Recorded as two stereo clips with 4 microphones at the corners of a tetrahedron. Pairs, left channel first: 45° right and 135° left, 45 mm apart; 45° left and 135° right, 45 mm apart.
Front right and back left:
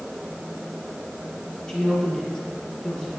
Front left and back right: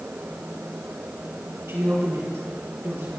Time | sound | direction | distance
1.7 | a woman speaking | 115° right | 6.5 m